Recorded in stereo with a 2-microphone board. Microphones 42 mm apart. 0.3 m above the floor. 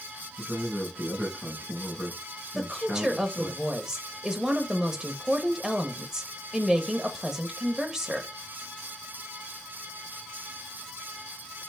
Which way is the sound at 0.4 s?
20° left (ahead or behind).